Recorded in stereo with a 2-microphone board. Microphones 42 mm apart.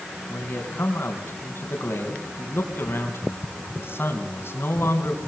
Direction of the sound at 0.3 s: 70° left (ahead or behind).